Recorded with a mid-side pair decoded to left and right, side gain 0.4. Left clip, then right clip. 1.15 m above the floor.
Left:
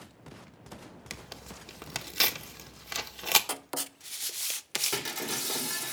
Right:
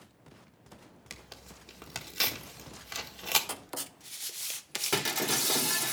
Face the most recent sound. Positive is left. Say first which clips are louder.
# right 4 dB
turn(degrees=-35)